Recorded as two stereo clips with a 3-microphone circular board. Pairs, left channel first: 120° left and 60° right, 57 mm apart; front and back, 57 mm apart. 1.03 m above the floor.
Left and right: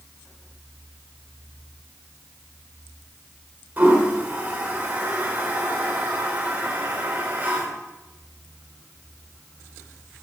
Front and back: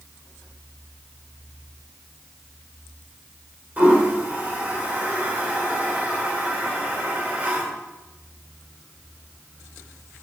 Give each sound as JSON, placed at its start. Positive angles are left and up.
{"t": 3.8, "sound": "a toilet flushing", "azimuth_deg": -115, "distance_m": 2.5}